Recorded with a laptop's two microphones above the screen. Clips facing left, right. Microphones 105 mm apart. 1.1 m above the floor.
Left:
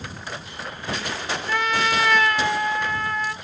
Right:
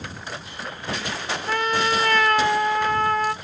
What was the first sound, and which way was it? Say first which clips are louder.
A trumpet: right 1 dB; 35° right (ahead or behind).